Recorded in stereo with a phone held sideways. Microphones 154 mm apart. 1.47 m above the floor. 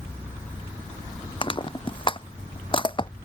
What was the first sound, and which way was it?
Crushing, 35° left (ahead or behind).